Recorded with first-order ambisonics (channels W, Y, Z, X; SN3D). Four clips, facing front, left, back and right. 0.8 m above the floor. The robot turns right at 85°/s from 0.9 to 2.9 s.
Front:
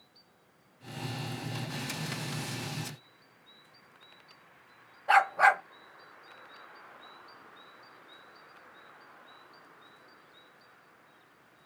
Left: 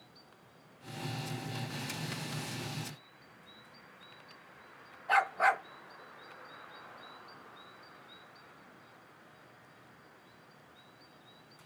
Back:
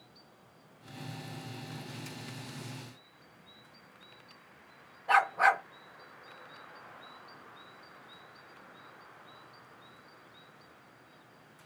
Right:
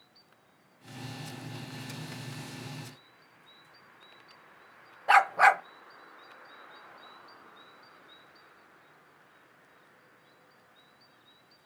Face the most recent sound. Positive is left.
turn(degrees=-80)